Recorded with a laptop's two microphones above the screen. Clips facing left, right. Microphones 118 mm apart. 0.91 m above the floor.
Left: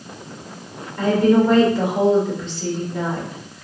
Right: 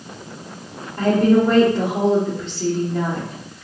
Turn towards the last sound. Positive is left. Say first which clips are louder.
# even
turn(degrees=-65)  # may be behind; listen again after turning